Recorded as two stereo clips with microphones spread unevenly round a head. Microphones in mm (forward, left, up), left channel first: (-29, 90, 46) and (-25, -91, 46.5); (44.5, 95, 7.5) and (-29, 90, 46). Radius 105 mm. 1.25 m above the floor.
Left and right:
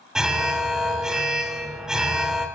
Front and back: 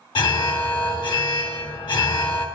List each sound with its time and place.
0.1 s an alarm: straight ahead, 3 m